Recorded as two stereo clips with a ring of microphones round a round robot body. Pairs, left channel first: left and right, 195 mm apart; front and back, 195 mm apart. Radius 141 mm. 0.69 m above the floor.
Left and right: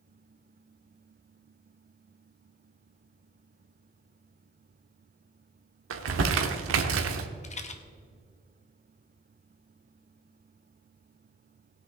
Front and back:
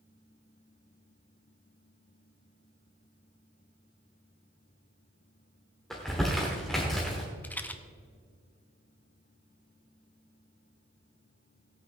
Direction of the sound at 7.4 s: 75° left.